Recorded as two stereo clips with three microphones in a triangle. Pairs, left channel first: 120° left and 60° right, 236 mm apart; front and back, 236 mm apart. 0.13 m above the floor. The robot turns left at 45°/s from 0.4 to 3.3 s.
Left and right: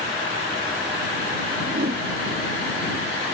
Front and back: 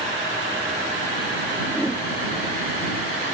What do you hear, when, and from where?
1.7 s a whoosh: 75° right; by 2.0 s 90° right